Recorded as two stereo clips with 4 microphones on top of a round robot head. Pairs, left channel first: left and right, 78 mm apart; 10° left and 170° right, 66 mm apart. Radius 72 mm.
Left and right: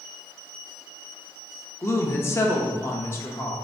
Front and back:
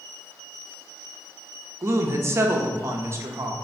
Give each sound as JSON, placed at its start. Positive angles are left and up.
{"t": 1.8, "sound": "a woman speaking", "azimuth_deg": 145, "distance_m": 0.7}